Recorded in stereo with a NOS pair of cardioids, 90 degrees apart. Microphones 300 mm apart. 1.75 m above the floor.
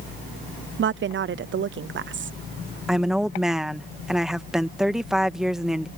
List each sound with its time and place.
0.8 s a woman speaking: 40° right
2.9 s a woman speaking: straight ahead